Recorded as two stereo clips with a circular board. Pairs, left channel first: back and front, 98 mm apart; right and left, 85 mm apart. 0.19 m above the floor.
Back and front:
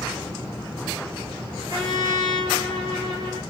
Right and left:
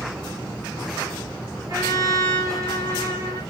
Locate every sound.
1.7 s a trumpet: 45° left, 5.5 m